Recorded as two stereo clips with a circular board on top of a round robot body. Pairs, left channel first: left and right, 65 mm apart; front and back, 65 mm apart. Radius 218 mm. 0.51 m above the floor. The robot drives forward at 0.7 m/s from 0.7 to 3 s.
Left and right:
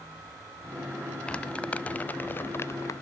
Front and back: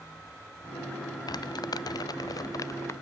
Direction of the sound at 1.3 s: 15° left.